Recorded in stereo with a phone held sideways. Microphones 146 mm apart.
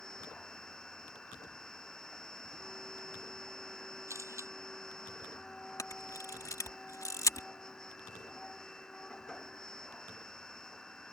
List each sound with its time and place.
0.0 s a machine running: 5° left (ahead or behind)
4.1 s a camera shutter: 20° right (ahead or behind)
5.8 s a camera shutter: 25° left (ahead or behind)